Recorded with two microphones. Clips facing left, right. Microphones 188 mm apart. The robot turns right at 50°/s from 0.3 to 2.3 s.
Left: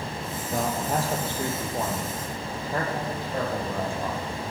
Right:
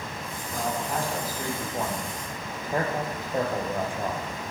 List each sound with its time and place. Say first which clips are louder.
0.5 s a man speaking: left 3 dB; 60° left (ahead or behind), 4.5 m; by 4.3 s 20° right (ahead or behind), 4.5 m